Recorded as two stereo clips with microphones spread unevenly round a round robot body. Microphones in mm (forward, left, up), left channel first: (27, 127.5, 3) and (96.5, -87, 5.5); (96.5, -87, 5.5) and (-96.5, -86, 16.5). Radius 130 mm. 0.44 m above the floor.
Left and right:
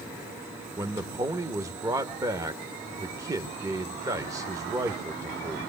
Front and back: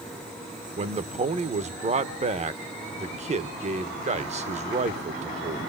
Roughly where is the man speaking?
Behind right.